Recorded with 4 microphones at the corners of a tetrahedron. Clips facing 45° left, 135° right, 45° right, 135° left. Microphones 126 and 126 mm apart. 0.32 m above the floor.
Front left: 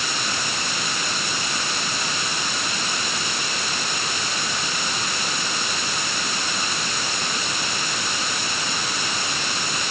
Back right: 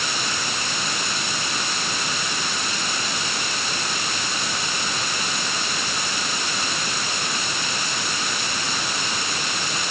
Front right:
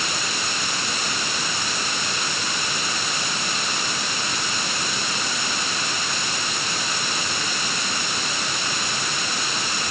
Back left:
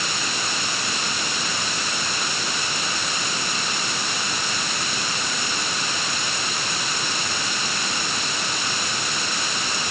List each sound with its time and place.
Only background noise.